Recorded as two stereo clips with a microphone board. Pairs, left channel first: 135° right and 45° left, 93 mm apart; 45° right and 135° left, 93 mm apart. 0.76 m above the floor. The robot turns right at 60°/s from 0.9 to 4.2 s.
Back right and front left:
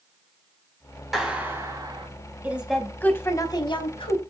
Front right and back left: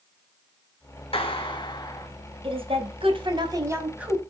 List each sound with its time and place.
1.1 s a clap: 40° right, 4 m; by 2.1 s 15° left, 4 m
2.4 s a woman speaking: 115° left, 4.5 m; by 4.2 s 140° right, 4.5 m